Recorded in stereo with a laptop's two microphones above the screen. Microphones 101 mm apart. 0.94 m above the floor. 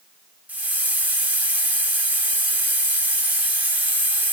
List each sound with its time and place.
0.5 s a hiss: 15° right (ahead or behind), 0.7 m